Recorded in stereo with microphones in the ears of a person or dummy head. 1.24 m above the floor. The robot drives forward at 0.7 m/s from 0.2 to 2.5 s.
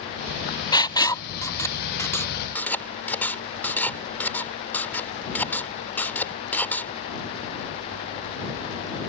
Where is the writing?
20° left (ahead or behind); by 6.9 s 10° left (ahead or behind).